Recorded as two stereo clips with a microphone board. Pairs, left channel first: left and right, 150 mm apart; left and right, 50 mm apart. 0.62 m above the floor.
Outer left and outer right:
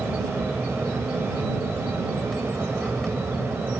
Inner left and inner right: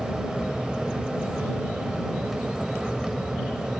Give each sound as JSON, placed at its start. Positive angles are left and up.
{"t": 0.0, "sound": "an aircraft", "side_deg": 0}